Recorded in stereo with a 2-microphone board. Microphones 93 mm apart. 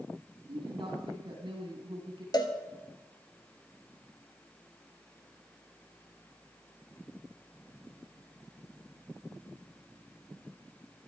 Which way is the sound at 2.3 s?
45° left (ahead or behind).